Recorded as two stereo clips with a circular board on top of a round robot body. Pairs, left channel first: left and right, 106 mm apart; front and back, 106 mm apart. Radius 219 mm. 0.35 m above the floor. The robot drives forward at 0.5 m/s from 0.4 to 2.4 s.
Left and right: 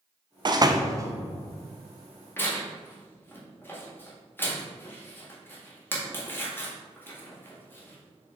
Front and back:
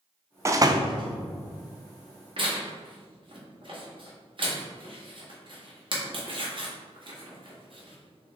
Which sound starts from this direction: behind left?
Tearing paper, at 2.4 s.